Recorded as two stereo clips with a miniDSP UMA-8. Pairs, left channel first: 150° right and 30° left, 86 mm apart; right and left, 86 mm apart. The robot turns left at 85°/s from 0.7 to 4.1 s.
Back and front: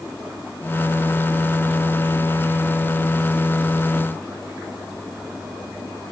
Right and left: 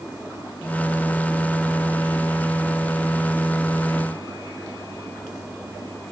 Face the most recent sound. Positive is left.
No sound to turn to.